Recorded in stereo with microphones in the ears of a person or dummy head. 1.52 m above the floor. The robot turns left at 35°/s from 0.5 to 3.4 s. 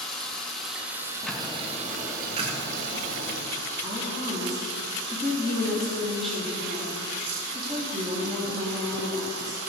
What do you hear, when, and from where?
0.0 s running water: 5° left, 2 m; by 9.7 s 95° right, 2 m
1.2 s ticking: 10° left, 1.7 m; by 3.4 s 70° right, 1.7 m
3.8 s a woman speaking: 5° left (ahead or behind), 2.5 m